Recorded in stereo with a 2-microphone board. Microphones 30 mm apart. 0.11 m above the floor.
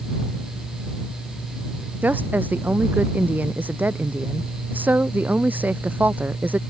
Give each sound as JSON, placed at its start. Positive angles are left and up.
{"t": 2.0, "sound": "a woman speaking", "side_deg": -75}